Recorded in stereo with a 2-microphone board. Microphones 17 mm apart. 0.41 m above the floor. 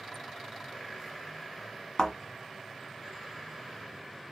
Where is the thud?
55° left (ahead or behind), 1.5 m.